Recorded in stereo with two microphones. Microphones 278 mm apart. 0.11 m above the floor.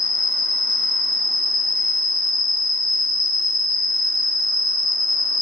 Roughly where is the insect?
Right.